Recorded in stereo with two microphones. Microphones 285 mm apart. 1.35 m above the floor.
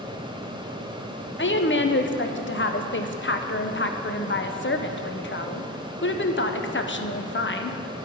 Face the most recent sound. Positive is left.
turn(degrees=40)  # may be behind; listen again after turning